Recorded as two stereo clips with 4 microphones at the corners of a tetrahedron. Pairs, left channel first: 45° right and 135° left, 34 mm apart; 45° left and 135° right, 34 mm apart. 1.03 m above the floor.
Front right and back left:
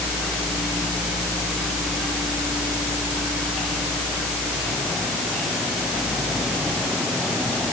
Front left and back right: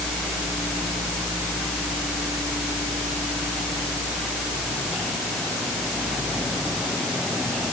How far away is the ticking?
No ticking in this recording.